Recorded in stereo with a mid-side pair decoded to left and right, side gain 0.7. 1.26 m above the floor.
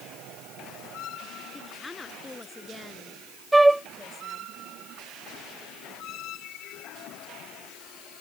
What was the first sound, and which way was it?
A woman speaking, 10° left.